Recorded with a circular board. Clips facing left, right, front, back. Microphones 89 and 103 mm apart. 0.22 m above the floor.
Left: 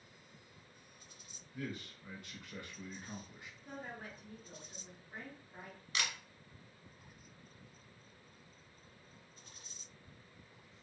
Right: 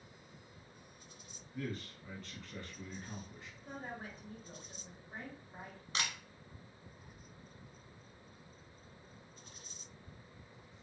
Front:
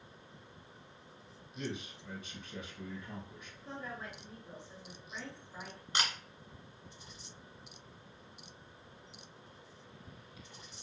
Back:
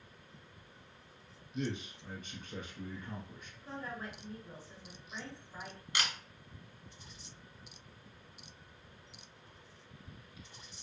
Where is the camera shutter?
50° right, 1.4 m.